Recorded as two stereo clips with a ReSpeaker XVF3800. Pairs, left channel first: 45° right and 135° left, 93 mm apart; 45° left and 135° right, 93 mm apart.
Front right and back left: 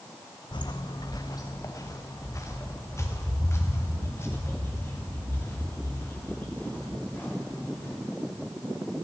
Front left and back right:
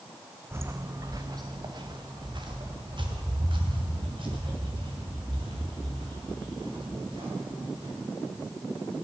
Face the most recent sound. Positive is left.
turn(degrees=-110)